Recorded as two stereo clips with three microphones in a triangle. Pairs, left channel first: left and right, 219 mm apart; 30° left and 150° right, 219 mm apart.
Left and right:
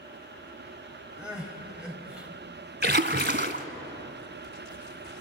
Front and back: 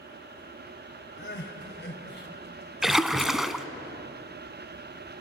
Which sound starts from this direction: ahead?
Crying, at 1.2 s.